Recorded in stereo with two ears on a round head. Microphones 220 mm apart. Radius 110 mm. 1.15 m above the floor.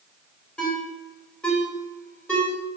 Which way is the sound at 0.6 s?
5° left (ahead or behind).